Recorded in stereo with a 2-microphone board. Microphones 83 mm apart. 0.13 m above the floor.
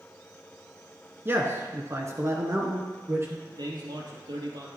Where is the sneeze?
No sneeze in this recording.